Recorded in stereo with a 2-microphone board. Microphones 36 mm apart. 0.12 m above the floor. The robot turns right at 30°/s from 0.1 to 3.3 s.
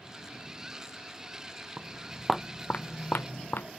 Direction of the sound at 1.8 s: 30° right (ahead or behind).